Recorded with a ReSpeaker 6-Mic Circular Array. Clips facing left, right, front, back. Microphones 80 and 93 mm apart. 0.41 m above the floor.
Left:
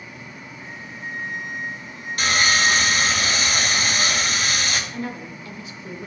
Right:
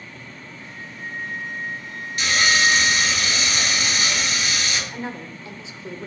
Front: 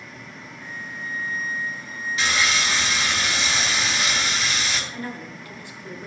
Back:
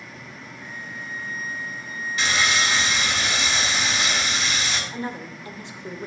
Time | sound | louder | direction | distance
0.6 | a flute | left 1 dB, front 2 dB | 35° left | 2.5 m
2.2 | sawing | even, back 1 dB | 90° left | 1.9 m
4.9 | a woman speaking | left 1 dB, back 2 dB | 135° right | 1.0 m